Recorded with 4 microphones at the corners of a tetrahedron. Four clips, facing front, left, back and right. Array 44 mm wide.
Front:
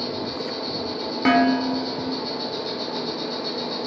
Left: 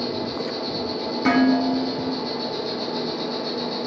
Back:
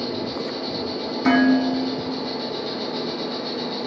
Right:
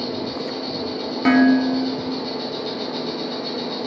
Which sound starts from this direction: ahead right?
Dishes clattering, at 1.2 s.